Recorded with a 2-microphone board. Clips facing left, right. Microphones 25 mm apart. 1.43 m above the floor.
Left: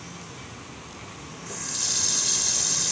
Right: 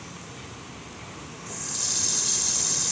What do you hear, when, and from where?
1.5 s a running tap: 15° left (ahead or behind)